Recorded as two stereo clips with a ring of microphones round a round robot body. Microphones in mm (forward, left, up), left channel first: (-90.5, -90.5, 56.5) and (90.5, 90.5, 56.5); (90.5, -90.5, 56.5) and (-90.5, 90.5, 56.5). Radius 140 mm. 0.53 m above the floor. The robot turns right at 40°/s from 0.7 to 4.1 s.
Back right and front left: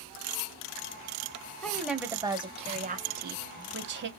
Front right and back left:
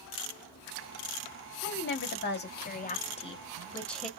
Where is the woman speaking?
50° right, 0.8 m; by 4.1 s 45° left, 0.8 m.